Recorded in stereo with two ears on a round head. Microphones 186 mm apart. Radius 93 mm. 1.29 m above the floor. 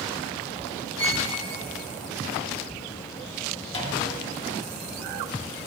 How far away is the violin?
About 1.2 m.